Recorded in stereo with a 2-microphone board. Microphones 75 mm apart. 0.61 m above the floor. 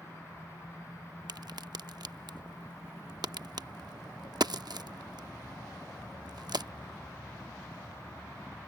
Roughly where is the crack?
Right.